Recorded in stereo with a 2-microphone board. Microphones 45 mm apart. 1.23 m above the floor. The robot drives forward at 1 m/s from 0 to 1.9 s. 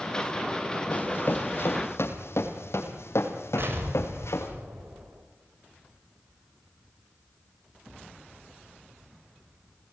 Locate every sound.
0.9 s running footsteps: 50° left (ahead or behind), 3.5 m; by 4.5 s 75° left (ahead or behind), 5 m
3.6 s an explosion: 55° right (ahead or behind), 5.5 m